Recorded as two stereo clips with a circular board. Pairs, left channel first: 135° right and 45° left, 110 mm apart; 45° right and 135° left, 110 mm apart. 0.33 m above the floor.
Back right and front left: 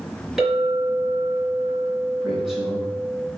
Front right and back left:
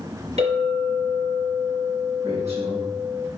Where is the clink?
130° left, 3.5 m.